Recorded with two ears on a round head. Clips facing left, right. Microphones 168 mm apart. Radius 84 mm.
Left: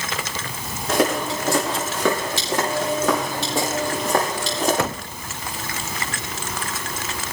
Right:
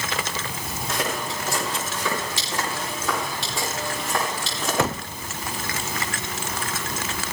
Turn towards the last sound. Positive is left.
turn(degrees=40)  # may be behind; listen again after turning